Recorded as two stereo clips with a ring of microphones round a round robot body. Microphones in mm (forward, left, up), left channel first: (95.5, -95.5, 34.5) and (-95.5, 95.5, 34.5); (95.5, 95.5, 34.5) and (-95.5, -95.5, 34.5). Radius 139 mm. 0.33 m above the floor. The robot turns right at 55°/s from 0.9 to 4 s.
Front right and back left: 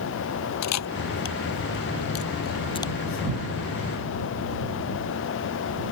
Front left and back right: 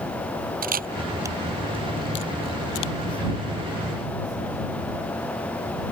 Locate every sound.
0.6 s a camera shutter: 75° right; by 2.9 s 35° left